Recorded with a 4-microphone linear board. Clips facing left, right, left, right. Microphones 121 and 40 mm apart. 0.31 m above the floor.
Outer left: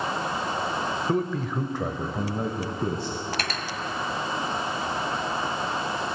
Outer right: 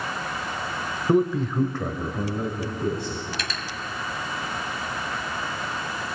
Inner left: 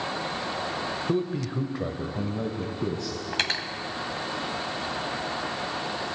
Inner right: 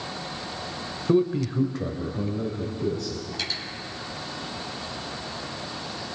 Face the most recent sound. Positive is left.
turn(degrees=60)  # may be behind; listen again after turning